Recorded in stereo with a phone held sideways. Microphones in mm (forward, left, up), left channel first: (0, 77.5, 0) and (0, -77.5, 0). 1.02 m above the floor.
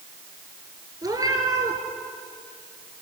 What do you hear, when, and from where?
1.0 s a cat meowing: 25° right (ahead or behind), 3 m